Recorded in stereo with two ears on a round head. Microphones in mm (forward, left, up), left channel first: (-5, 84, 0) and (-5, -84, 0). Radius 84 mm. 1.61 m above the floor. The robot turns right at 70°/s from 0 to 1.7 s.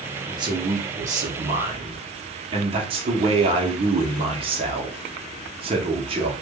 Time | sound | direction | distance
0.3 | a man speaking | 150° right | 0.7 m